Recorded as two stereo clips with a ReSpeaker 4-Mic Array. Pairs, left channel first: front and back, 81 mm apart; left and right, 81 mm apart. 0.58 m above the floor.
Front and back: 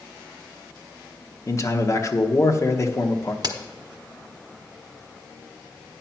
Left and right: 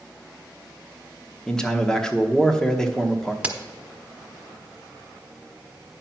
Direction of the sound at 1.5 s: 15° left.